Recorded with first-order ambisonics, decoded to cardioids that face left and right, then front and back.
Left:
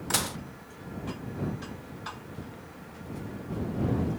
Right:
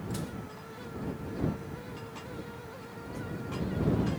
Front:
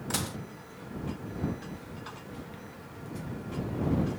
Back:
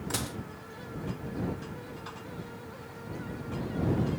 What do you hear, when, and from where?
0.1 s dishes clattering: 85° left